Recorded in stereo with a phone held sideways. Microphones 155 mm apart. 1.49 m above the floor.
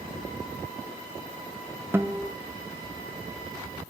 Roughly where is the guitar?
Centre.